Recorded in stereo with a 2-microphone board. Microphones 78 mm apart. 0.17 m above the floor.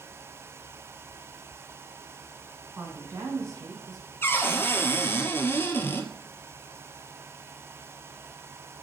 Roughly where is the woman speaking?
Right.